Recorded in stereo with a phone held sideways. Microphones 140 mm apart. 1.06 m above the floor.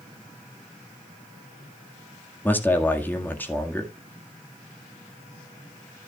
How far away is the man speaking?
About 1.8 m.